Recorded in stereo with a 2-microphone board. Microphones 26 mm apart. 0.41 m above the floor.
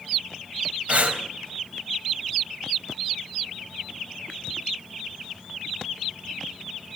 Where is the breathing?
60° right (ahead or behind), 2.5 m.